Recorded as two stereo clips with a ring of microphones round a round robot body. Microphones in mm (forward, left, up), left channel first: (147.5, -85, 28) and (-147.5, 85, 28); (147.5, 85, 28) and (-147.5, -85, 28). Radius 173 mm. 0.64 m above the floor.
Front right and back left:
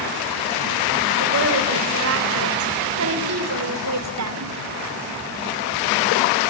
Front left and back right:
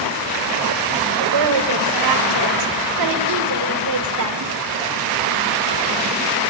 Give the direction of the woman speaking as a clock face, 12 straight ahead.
5 o'clock.